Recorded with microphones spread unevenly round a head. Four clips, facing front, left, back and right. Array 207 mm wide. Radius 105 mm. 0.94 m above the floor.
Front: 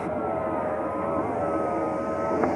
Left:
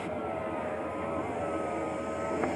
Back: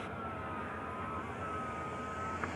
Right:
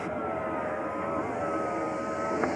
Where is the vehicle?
5° right.